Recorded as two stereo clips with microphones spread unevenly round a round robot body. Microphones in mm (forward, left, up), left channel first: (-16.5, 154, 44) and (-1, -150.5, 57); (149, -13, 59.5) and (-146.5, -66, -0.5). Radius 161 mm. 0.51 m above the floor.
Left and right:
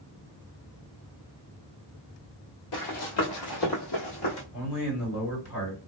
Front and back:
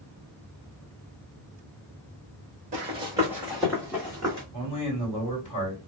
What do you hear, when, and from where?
2.7 s running footsteps: 120° left, 1.1 m; by 4.4 s 80° left, 1.6 m
4.5 s a man speaking: 85° left, 2 m